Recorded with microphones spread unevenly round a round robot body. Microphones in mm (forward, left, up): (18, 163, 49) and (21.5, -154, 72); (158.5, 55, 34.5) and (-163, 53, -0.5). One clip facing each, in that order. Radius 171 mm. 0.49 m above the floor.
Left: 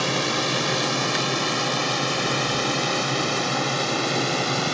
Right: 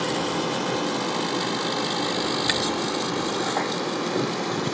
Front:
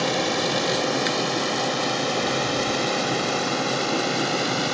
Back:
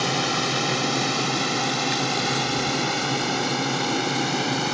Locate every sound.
0.0 s a drone: 125° left; by 4.7 s 110° left